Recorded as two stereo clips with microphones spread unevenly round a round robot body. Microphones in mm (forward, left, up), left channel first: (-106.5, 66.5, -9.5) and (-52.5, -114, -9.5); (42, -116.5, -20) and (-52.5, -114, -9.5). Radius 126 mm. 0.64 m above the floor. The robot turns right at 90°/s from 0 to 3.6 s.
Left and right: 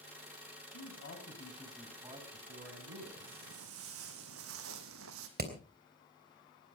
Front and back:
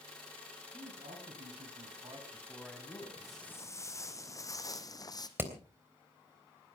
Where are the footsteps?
105° right, 3.5 m; by 5.3 s 55° right, 2 m.